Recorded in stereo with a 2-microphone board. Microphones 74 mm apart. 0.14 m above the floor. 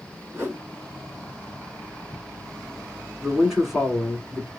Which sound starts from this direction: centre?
A man speaking, at 3.2 s.